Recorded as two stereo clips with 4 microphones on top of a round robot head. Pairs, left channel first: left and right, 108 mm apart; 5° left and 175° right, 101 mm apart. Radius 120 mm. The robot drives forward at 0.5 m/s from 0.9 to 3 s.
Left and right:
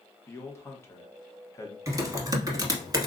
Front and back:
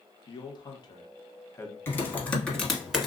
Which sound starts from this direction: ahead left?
A man speaking, at 0.3 s.